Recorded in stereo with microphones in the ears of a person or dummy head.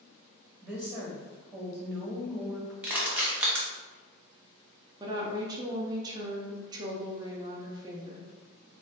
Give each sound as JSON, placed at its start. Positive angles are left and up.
{"t": 0.6, "sound": "a woman speaking", "side_deg": -5, "distance_m": 1.4}
{"t": 2.8, "sound": "crushing", "side_deg": -5, "distance_m": 0.9}
{"t": 5.0, "sound": "a woman speaking", "side_deg": -20, "distance_m": 0.5}